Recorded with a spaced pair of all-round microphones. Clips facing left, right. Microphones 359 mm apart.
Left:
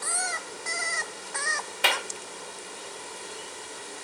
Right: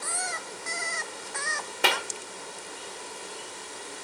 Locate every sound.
1.8 s a clap: 55° right (ahead or behind), 1.1 m